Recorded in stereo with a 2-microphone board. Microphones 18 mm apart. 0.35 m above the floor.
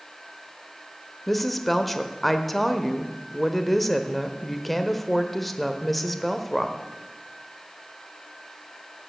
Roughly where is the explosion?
I don't hear an explosion.